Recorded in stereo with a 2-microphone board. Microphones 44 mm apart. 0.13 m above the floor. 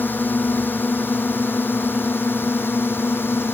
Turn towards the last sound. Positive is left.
turn(degrees=60)  # may be behind; listen again after turning